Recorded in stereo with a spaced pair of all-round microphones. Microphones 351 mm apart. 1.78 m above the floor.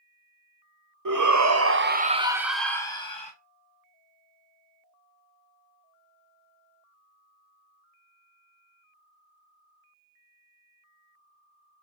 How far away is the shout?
About 0.8 m.